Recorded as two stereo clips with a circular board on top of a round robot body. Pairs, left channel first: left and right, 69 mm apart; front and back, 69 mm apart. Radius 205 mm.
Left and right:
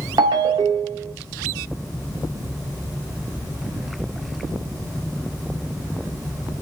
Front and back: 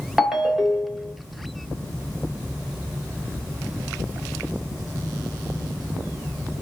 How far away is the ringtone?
About 1.0 m.